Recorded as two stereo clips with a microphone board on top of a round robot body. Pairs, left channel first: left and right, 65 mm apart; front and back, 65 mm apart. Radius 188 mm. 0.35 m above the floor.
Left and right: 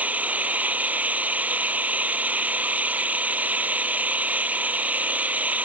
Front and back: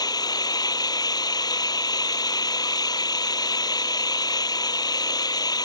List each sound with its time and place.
0.0 s an engine running: 20° right